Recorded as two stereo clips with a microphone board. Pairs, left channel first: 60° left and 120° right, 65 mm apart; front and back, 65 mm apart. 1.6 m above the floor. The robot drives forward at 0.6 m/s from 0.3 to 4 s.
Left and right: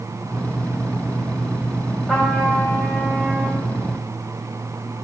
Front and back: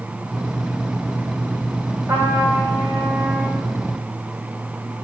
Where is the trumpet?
150° left, 3 m; by 3.7 s 155° left, 4 m.